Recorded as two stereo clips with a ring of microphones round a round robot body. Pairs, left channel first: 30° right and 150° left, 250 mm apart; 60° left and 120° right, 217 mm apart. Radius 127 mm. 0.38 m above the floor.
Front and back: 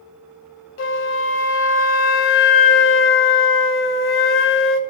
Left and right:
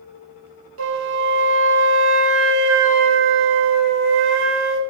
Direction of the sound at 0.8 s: 75° right.